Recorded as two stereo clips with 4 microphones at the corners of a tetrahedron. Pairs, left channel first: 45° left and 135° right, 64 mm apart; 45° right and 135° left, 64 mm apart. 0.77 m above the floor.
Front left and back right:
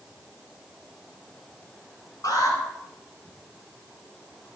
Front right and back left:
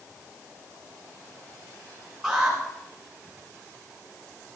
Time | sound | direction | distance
2.2 | an alarm | 45° left | 8.5 m